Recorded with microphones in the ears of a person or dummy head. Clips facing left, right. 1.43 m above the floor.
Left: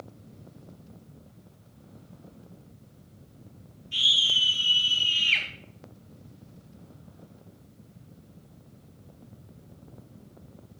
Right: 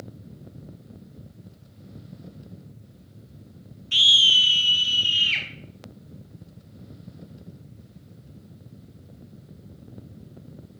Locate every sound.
3.9 s a scream: 80° right, 1.1 m; by 5.5 s 10° right (ahead or behind), 1.8 m